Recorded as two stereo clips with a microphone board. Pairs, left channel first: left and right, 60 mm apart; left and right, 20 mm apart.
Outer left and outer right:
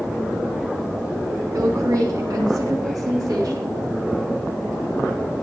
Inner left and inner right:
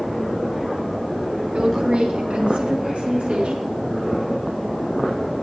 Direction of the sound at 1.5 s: 70° right (ahead or behind).